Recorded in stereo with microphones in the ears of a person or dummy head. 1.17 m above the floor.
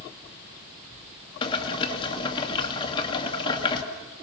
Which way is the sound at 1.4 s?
25° left (ahead or behind).